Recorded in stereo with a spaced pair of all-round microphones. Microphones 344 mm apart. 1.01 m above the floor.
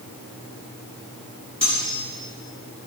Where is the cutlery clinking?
45° left (ahead or behind), 5.5 m.